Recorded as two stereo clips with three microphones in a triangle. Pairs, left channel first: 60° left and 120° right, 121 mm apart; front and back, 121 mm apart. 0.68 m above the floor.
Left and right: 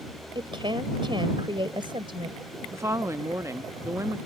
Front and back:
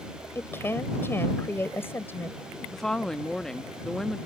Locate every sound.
0.3 s a woman speaking: 70° right
2.7 s a woman speaking: 80° right